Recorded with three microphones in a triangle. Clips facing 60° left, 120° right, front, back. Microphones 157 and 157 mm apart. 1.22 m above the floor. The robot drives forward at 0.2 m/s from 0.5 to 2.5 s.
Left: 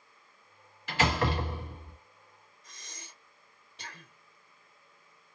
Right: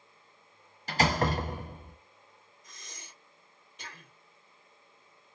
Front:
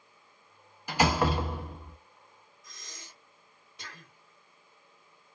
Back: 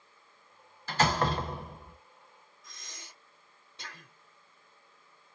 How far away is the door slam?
About 0.7 m.